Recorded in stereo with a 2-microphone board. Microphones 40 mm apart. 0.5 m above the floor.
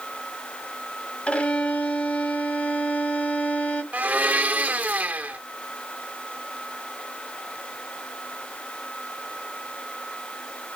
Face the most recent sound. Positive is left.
turn(degrees=-40)  # may be behind; listen again after turning